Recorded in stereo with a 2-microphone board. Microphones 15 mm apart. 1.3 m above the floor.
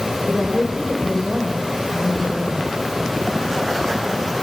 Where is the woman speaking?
35° left (ahead or behind), 5 m.